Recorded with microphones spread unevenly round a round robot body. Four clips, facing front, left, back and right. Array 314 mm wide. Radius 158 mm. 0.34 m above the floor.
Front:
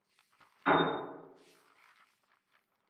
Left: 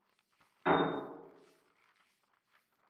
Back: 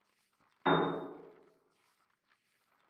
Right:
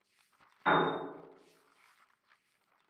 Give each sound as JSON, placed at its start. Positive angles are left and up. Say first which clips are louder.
{"t": 0.7, "sound": "a piano", "louder": "right 1 dB, front 2 dB", "azimuth_deg": 175, "distance_m": 0.8}